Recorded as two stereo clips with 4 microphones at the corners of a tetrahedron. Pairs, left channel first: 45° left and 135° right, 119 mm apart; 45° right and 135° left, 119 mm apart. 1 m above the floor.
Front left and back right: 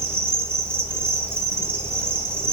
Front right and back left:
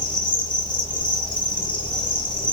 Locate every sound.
0.0 s an insect: 75° right, 1.0 m